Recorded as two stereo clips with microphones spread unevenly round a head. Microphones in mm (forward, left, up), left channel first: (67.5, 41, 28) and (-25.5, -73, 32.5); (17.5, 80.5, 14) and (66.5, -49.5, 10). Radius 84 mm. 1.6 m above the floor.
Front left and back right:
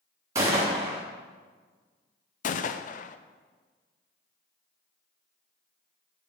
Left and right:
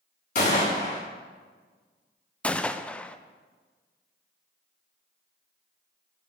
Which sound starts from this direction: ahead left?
A gunshot, at 2.4 s.